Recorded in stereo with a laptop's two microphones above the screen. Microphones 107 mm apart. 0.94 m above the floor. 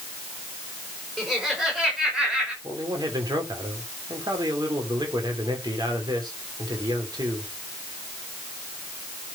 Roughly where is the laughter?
Centre.